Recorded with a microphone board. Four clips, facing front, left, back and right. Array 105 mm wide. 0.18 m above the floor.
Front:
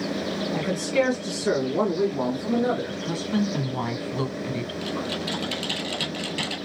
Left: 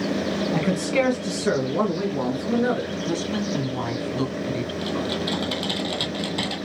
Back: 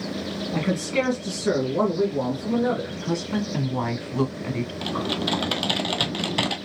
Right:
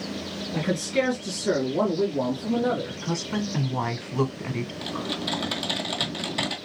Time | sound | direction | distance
0.5 | a man speaking | 115° left | 1.6 m
3.0 | a woman speaking | 120° right | 1.0 m
4.8 | typing on a keyboard | straight behind | 0.8 m